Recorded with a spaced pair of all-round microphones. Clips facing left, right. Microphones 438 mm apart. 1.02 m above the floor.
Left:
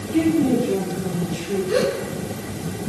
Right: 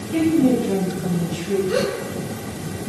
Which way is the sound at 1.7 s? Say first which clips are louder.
Left 1 dB; centre (ahead or behind).